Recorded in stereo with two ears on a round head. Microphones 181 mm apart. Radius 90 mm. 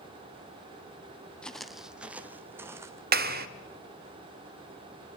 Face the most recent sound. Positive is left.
turn(degrees=-50)  # may be behind; listen again after turning